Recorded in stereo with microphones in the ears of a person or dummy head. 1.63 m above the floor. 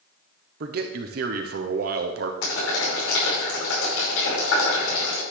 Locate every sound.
0.6 s a man speaking: 60° right (ahead or behind), 0.9 m
2.4 s boiling: 85° left, 5 m